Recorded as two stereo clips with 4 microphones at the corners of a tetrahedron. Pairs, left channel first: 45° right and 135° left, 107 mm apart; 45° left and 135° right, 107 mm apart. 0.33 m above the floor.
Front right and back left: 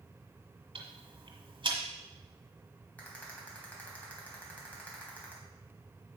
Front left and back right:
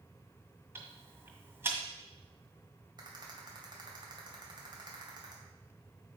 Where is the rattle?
115° right, 2 m.